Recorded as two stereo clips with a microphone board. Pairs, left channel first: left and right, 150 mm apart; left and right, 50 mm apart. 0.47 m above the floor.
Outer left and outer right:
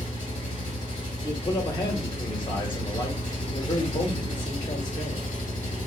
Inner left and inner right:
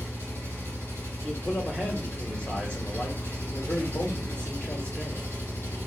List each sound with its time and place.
0.0 s an engine running: 55° left (ahead or behind), 2.5 m
1.2 s a man speaking: 30° left (ahead or behind), 1.1 m